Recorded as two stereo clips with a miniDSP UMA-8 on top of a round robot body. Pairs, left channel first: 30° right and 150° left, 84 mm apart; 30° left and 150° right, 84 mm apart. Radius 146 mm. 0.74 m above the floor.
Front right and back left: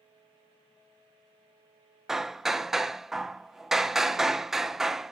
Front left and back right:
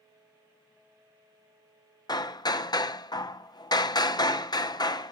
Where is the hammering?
65° left, 0.6 m.